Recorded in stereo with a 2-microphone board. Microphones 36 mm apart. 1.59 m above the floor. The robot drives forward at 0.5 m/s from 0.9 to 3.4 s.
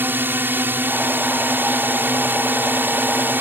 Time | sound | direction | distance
0.0 | a drone | 60° right (ahead or behind) | ?